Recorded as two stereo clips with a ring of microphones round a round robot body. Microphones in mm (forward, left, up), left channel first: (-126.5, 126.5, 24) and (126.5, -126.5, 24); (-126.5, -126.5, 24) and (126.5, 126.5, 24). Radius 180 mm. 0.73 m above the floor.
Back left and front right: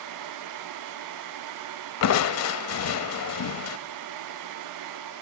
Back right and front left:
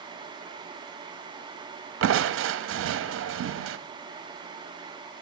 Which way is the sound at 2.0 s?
95° left.